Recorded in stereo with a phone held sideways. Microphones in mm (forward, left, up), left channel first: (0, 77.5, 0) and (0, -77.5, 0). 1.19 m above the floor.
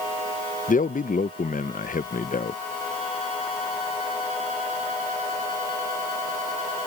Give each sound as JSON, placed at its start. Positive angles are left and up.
{"t": 0.7, "sound": "a man speaking", "side_deg": 65}